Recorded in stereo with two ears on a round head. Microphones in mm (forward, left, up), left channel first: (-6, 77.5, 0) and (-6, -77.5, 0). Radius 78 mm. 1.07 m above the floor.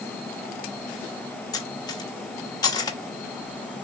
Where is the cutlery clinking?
25° left (ahead or behind), 0.9 m.